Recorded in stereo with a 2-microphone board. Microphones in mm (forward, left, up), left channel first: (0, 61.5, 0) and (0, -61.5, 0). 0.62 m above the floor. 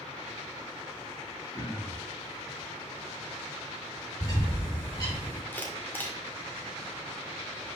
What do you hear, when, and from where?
1.5 s throat clearing: 25° left (ahead or behind), 2.5 m
4.2 s a bird: 35° left (ahead or behind), 3.5 m
5.5 s a camera shutter: 15° left (ahead or behind), 1.5 m